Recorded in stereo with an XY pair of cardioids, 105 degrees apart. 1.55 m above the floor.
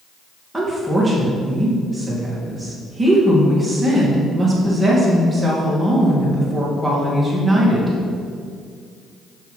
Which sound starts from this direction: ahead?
A woman speaking, at 0.5 s.